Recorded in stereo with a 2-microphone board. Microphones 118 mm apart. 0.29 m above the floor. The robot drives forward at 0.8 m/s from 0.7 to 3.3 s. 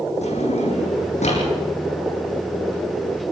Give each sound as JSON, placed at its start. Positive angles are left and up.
{"t": 0.2, "sound": "a drawer", "side_deg": 70, "distance_m": 8.5}